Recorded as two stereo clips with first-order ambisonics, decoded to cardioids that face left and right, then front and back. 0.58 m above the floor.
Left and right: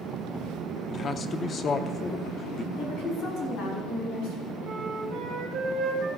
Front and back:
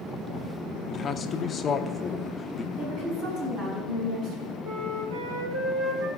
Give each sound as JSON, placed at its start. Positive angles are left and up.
{"t": 0.9, "sound": "a man speaking", "azimuth_deg": 45, "distance_m": 0.7}
{"t": 2.8, "sound": "a woman speaking", "azimuth_deg": 135, "distance_m": 5.0}
{"t": 4.6, "sound": "a flute", "azimuth_deg": -150, "distance_m": 3.0}